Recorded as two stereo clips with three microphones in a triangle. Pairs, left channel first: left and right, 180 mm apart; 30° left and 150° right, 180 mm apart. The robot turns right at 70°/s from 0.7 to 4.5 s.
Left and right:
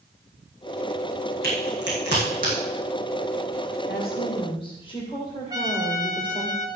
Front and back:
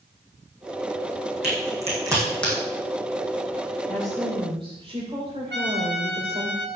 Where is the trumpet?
160° right, 1.6 m.